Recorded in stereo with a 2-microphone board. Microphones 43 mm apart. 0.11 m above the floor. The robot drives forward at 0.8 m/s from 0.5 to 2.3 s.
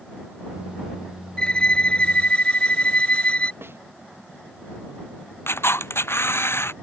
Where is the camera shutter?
70° left (ahead or behind).